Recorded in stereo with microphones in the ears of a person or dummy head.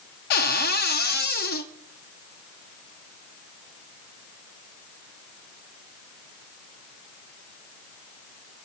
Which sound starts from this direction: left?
A cupboard door, at 0.3 s.